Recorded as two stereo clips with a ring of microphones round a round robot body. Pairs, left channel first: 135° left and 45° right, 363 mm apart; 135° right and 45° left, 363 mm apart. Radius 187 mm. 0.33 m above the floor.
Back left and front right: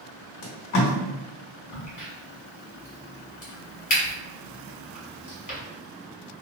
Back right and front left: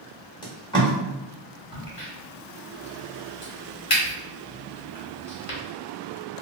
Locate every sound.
0.4 s tape being pulled: 155° left, 1.1 m
1.7 s a crack: 175° right, 1.7 m